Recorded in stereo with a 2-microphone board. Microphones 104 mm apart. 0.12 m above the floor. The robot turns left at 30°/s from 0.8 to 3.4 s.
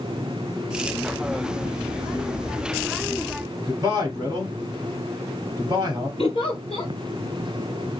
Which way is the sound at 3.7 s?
30° right (ahead or behind).